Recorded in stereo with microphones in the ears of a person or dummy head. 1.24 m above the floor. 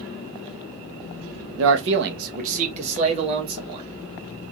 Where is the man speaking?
75° right (ahead or behind), 0.6 m; by 3.9 s 30° right (ahead or behind), 2.5 m.